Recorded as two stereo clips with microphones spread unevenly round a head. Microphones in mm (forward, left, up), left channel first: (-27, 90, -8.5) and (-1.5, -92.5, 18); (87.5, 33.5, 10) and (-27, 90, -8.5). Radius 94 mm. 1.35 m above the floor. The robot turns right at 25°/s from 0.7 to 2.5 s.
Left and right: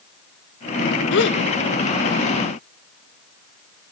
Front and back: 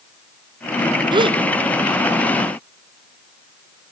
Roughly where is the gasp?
Left.